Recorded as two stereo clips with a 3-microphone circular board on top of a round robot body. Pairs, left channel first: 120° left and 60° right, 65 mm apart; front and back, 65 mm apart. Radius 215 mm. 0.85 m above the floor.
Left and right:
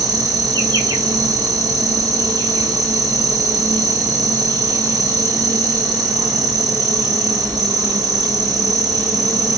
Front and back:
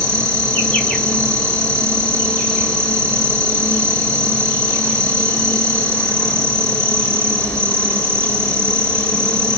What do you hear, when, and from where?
0.0 s an insect: 80° right, 4 m